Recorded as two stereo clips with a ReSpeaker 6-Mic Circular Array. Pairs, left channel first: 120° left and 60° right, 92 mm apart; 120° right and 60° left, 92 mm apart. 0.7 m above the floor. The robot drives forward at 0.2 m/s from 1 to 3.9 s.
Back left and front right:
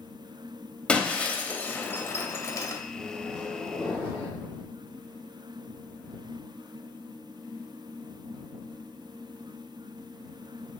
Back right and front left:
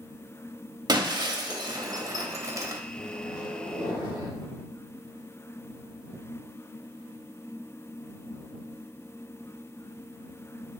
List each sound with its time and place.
0.9 s breaking glass: 45° left, 0.6 m; by 2.8 s 100° left, 0.5 m
2.9 s a microwave: 155° right, 1.1 m; by 4.3 s 160° right, 1.3 m